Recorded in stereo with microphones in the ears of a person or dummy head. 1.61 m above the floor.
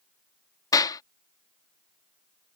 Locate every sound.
0.7 s a clap: 25° left (ahead or behind)